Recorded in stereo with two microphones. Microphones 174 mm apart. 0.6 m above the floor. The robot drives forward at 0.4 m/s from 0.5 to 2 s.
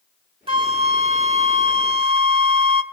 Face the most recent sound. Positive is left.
turn(degrees=-35)  # may be behind; listen again after turning